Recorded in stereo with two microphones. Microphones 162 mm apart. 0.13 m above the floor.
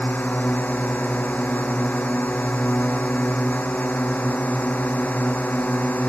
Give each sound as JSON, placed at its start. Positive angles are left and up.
{"t": 0.0, "sound": "a drone", "side_deg": 10}